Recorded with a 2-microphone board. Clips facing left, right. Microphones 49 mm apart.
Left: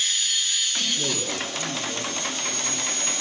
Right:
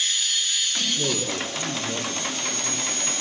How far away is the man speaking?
About 5 m.